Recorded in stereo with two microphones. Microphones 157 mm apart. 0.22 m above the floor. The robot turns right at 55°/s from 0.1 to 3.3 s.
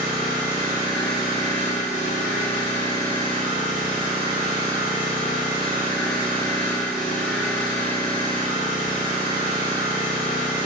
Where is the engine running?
5° right, 1.0 m; by 10.7 s 170° left, 1.0 m.